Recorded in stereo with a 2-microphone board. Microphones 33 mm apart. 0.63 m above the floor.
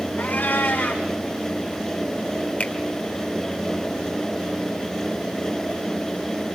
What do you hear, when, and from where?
0.2 s a cat meowing: 85° left, 4 m
2.6 s a finger snap: 60° left (ahead or behind), 1.7 m